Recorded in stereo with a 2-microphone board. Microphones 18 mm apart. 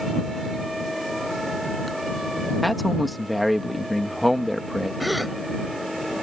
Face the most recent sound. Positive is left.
turn(degrees=0)  # may be behind; listen again after turning